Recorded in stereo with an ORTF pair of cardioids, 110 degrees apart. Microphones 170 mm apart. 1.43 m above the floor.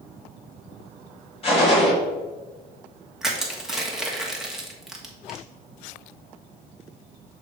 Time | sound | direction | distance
1.4 | a gunshot | 35° left | 2.5 m
3.2 | crushing | straight ahead | 1.3 m